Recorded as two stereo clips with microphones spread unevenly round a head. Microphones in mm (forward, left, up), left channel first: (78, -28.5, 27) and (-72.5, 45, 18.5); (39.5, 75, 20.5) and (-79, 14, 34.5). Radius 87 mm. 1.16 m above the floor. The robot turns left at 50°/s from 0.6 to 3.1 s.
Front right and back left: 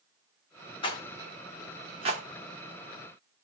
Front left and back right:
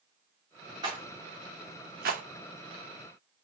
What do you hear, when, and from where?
0.8 s a rattle: 85° right, 0.8 m; by 2.2 s 155° right, 0.8 m